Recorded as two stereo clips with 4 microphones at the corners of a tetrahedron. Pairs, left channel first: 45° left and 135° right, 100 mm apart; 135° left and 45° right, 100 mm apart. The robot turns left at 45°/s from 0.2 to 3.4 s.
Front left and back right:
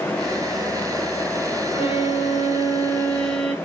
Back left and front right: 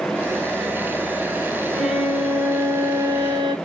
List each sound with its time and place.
1.7 s a violin: 45° left, 1.3 m; by 3.5 s 30° right, 1.3 m